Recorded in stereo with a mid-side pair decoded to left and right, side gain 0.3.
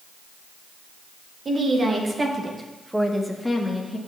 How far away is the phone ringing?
No phone ringing in this recording.